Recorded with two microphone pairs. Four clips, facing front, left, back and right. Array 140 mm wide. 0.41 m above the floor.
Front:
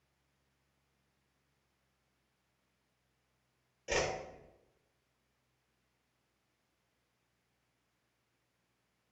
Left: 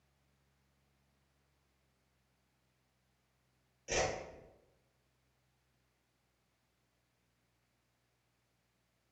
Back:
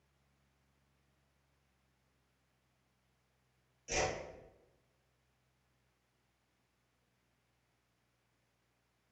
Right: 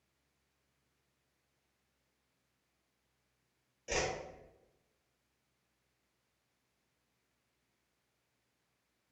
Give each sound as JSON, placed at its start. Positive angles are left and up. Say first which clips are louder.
{"t": 3.9, "sound": "a whoosh", "louder": "left 1 dB, front 2 dB", "azimuth_deg": -20, "distance_m": 0.9}